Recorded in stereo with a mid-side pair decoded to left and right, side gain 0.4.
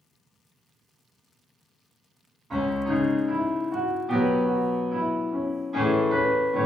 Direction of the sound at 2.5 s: 45° right.